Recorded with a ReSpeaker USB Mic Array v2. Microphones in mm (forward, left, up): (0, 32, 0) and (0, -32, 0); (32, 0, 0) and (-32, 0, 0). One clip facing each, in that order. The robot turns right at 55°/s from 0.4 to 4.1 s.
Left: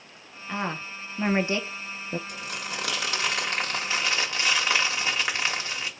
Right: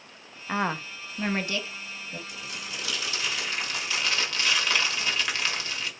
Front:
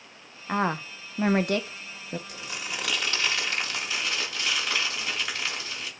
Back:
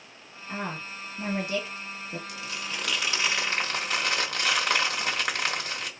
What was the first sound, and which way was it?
A woman speaking, 30° right.